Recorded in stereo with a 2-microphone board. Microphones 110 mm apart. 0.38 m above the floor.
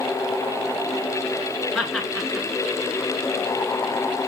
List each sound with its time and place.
1.8 s laughter: centre (ahead or behind), 5 m